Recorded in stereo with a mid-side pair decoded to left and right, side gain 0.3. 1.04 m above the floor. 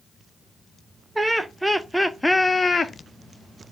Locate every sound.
1.1 s laughter: 25° right, 1.1 m; by 2.9 s 60° left, 0.6 m